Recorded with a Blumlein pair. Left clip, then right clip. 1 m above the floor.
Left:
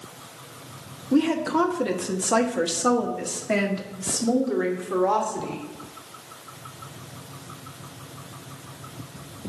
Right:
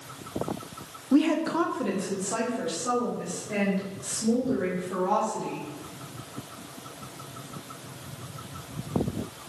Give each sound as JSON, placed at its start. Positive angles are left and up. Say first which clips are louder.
{"t": 1.1, "sound": "a woman speaking", "louder": "left 2 dB", "azimuth_deg": 0, "distance_m": 1.3}